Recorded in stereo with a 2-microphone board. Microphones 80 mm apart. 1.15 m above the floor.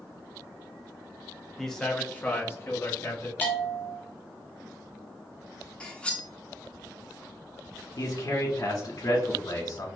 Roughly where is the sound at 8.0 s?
Left.